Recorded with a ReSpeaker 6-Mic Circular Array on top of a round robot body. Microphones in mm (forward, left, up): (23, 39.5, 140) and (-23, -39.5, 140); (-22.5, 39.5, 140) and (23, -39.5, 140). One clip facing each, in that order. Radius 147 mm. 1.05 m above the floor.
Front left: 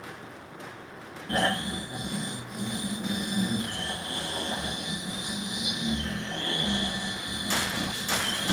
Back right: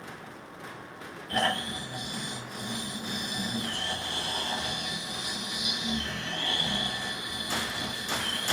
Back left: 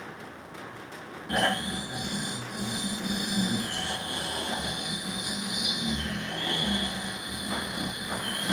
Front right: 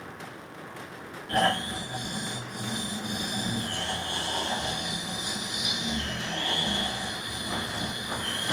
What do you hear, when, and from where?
1.3 s snoring: 50° left, 2 m